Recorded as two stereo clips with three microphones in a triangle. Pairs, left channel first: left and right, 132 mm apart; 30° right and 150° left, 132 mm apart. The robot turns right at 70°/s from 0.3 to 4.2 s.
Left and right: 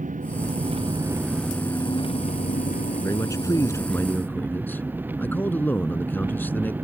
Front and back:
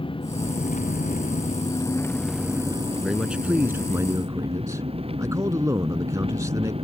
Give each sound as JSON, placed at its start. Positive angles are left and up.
{"t": 0.0, "sound": "an engine running", "azimuth_deg": -80}
{"t": 3.0, "sound": "a man speaking", "azimuth_deg": 60}